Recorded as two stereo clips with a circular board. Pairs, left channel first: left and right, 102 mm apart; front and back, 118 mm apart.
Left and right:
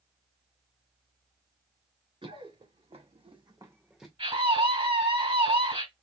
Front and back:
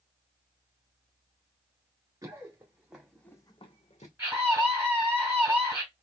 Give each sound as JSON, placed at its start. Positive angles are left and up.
{"t": 2.2, "sound": "running footsteps", "azimuth_deg": -115, "distance_m": 2.5}
{"t": 4.2, "sound": "a scream", "azimuth_deg": -105, "distance_m": 3.0}